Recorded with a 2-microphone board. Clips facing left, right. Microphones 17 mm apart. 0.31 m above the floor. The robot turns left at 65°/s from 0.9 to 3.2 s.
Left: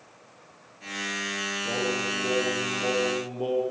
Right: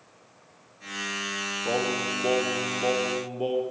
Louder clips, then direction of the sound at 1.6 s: Right 2 dB; 60° right.